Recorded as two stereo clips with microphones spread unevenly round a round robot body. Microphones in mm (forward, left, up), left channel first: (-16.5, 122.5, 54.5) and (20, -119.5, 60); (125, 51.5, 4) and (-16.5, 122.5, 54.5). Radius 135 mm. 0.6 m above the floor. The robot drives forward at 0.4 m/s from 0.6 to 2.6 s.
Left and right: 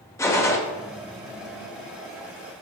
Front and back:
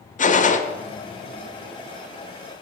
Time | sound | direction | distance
0.2 | a gunshot | 20° left | 0.7 m